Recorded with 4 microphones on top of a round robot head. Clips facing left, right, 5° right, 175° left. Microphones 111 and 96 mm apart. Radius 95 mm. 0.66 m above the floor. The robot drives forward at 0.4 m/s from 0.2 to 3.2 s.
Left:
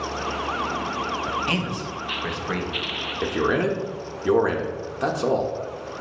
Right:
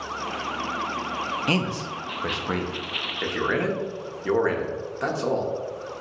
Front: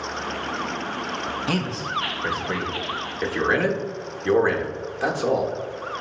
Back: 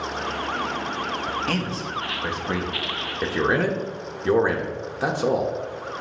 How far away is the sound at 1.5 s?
About 0.6 m.